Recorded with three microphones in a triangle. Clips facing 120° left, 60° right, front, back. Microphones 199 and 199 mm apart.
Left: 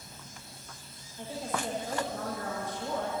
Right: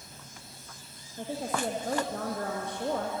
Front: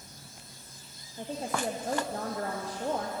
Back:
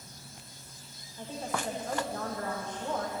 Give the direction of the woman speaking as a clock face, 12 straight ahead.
2 o'clock.